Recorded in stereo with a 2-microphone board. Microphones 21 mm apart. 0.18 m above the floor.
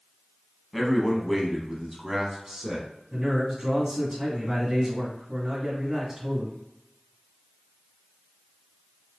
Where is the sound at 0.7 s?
10° left (ahead or behind), 1.1 m; by 2.9 s 25° right (ahead or behind), 1.3 m.